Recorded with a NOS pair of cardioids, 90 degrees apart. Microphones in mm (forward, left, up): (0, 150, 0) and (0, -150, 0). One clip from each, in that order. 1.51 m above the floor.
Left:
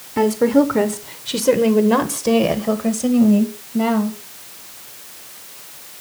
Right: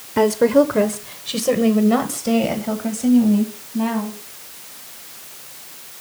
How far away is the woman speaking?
About 1.0 m.